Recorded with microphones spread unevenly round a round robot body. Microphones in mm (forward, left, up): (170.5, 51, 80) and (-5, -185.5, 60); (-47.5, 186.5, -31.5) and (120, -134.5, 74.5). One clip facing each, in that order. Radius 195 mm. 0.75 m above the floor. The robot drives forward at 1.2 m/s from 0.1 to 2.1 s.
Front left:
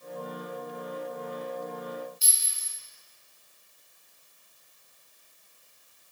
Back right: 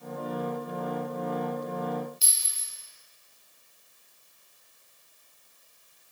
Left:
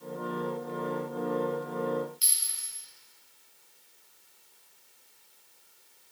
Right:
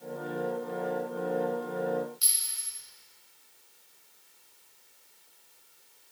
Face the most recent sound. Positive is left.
turn(degrees=-150)